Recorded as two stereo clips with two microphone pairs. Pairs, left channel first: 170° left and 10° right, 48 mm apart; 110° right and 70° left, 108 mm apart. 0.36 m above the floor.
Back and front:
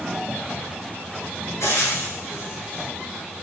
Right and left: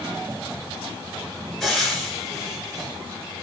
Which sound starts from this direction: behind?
Frying, at 1.6 s.